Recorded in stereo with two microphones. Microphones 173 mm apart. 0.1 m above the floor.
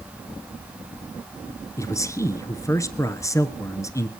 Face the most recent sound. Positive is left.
turn(degrees=20)  # may be behind; listen again after turning